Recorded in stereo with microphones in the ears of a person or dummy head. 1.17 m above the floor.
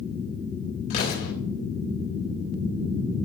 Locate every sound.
0.9 s an explosion: 50° left (ahead or behind), 4 m